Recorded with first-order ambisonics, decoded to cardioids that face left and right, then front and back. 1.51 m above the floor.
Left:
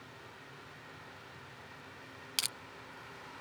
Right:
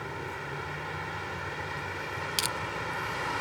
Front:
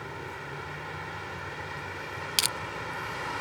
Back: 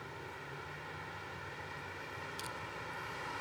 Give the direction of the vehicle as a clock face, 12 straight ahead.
2 o'clock.